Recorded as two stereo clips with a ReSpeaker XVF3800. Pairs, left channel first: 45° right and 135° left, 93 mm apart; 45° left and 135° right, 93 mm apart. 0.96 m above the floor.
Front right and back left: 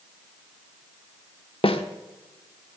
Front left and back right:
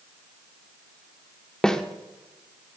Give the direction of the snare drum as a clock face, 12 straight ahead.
1 o'clock.